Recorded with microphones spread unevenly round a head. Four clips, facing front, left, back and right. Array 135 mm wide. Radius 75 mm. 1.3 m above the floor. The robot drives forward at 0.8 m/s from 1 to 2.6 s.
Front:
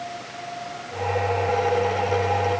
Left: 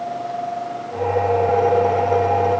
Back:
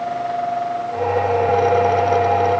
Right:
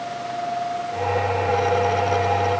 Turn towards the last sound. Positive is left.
No sound to turn to.